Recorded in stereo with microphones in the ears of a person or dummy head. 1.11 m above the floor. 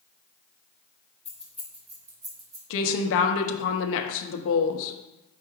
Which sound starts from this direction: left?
A woman speaking, at 2.7 s.